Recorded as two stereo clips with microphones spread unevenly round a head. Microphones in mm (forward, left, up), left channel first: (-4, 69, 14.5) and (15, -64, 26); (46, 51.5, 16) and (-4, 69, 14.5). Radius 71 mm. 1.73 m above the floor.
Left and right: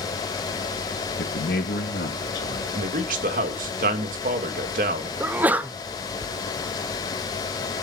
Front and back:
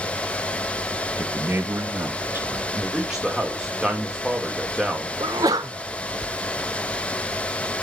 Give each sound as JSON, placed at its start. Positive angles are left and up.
{"t": 1.2, "sound": "a man speaking", "azimuth_deg": 105, "distance_m": 2.5}
{"t": 2.8, "sound": "a man speaking", "azimuth_deg": -115, "distance_m": 2.5}
{"t": 5.2, "sound": "a sneeze", "azimuth_deg": -160, "distance_m": 0.8}